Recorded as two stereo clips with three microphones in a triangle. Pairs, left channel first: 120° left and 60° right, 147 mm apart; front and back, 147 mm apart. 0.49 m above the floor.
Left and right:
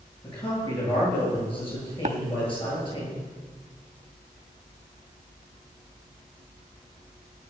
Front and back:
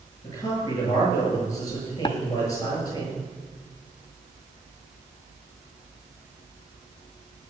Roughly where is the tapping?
Ahead right.